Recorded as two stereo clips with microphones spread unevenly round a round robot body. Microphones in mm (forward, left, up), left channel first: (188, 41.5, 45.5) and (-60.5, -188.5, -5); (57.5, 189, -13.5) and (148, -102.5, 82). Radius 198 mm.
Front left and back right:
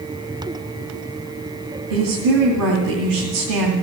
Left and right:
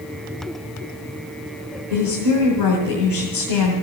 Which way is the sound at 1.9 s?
155° right.